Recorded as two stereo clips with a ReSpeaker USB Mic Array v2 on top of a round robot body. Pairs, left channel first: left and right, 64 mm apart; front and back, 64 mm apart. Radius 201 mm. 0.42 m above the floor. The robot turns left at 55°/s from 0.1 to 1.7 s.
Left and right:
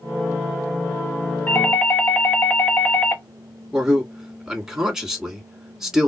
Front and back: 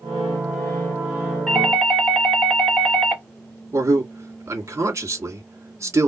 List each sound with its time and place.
1.5 s a doorbell: 85° left, 1.5 m; by 3.2 s 70° left, 1.5 m
3.7 s a man speaking: 170° right, 2.0 m